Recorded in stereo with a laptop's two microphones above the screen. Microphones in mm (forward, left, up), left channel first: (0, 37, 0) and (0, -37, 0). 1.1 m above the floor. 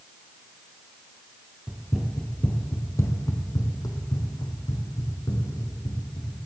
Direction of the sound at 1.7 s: 10° right (ahead or behind).